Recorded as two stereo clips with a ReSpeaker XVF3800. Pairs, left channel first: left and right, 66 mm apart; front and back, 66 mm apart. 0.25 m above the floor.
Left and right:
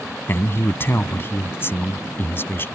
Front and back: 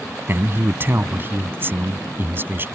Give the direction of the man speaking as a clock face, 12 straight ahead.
8 o'clock.